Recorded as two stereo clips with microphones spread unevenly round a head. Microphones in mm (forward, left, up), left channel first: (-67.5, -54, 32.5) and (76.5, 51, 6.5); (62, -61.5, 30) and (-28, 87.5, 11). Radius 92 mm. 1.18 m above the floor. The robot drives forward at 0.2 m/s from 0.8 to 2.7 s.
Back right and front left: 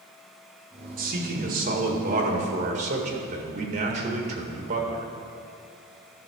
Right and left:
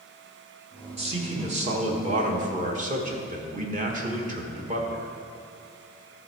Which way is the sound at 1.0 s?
70° left.